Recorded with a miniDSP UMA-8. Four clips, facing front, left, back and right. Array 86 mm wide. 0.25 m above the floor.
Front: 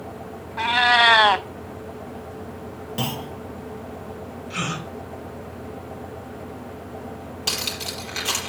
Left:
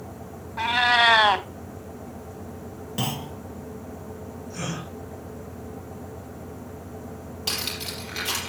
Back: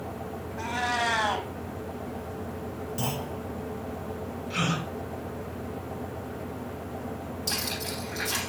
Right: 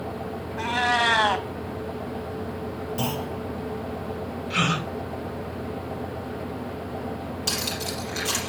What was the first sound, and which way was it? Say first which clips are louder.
A cat meowing: left 3 dB, front 11 dB; 20° left.